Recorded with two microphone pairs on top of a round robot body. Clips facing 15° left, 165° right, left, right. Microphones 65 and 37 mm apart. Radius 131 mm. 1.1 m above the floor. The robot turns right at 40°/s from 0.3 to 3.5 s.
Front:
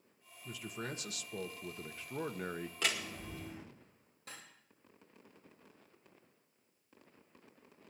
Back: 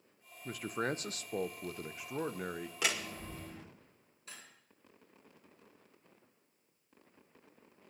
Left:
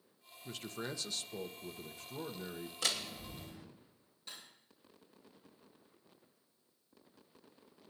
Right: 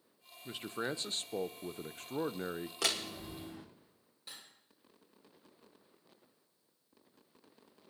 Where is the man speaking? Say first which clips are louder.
Back 7 dB, right 4 dB; 155° right, 0.7 m; by 2.7 s 65° right, 0.7 m.